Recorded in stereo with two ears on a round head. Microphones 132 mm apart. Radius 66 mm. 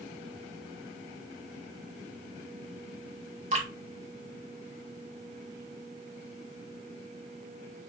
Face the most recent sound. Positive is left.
turn(degrees=-50)  # may be behind; listen again after turning